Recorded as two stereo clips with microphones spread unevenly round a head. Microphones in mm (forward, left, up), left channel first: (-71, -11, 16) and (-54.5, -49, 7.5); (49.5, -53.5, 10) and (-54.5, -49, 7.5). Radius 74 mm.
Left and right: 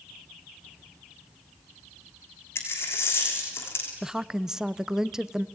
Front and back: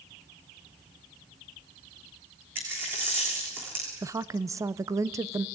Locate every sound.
2.5 s a dropped coin: 100° left, 3 m
4.0 s a woman speaking: 130° right, 0.7 m